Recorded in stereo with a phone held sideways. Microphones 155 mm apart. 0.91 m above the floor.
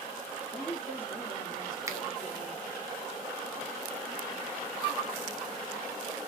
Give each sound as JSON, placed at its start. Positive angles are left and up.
{"t": 0.5, "sound": "a woman speaking", "side_deg": 0, "distance_m": 2.0}
{"t": 1.9, "sound": "a finger snap", "side_deg": -20, "distance_m": 0.6}